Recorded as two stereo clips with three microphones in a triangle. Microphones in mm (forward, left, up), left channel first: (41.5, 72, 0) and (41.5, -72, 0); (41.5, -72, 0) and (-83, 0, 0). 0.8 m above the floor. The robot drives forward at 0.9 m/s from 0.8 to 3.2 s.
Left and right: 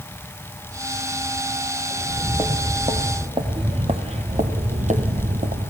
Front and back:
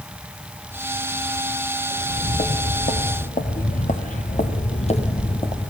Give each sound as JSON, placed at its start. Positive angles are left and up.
{"t": 1.9, "sound": "footsteps", "azimuth_deg": -15, "distance_m": 3.5}